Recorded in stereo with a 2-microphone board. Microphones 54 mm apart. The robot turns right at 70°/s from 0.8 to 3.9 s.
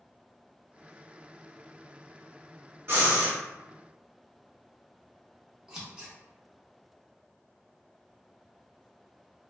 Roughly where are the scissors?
Centre.